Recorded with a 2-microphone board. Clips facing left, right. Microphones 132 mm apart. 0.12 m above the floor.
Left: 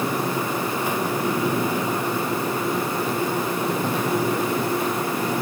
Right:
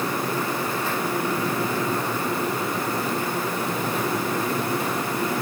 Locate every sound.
Only background noise.